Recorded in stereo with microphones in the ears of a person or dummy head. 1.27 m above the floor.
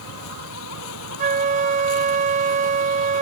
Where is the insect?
85° left.